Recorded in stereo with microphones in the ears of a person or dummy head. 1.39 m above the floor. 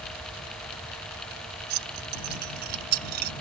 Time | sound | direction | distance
1.7 | keys jangling | 55° right (ahead or behind) | ?